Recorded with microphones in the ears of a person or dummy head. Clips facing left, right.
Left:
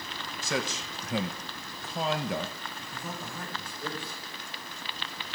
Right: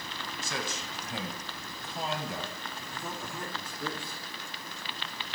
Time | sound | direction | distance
0.4 | a man speaking | 65° left (ahead or behind) | 1.0 m
2.9 | a man speaking | 70° right (ahead or behind) | 3.5 m